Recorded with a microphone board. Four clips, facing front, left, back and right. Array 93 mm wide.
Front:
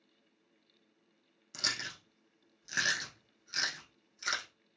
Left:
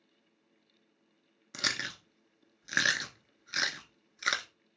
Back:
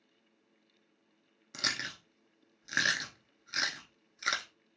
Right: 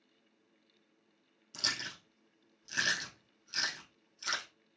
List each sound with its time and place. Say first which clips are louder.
1.5 s chewing: left 5 dB, back 2 dB; 115° left, 0.7 m